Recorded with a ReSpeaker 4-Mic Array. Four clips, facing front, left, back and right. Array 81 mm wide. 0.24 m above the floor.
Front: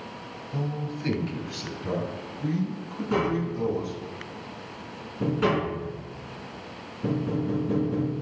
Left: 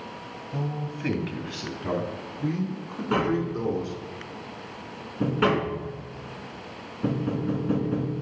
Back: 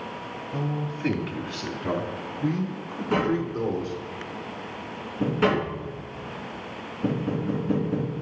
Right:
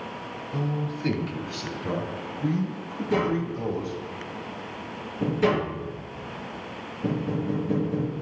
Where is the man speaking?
130° left, 1.2 m.